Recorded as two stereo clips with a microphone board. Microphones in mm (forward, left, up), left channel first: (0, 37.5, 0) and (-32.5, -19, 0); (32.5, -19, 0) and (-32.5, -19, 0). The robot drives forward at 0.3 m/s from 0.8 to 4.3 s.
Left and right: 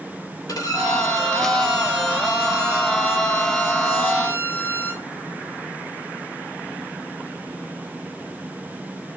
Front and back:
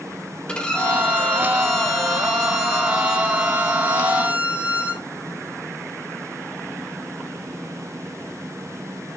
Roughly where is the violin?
Left.